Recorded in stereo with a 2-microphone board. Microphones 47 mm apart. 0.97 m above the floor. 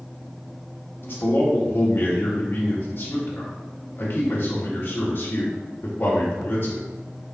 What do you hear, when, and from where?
1.0 s a man speaking: 50° left (ahead or behind), 1.5 m